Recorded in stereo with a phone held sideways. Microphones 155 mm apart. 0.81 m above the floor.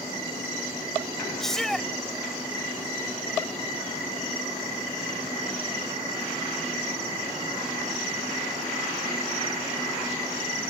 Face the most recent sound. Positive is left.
turn(degrees=5)  # may be behind; listen again after turning